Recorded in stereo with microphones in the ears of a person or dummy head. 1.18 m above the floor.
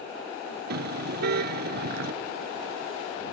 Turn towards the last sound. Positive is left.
turn(degrees=-60)  # may be behind; listen again after turning